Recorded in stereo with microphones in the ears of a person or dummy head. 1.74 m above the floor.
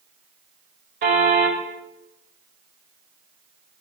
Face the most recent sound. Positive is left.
turn(degrees=-55)  # may be behind; listen again after turning